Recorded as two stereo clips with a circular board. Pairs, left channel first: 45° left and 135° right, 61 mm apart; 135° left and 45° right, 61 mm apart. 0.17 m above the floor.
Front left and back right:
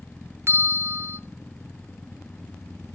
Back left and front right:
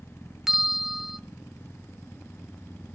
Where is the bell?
130° right, 0.7 m.